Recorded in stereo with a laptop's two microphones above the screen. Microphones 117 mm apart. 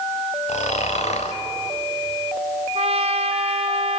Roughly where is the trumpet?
Right.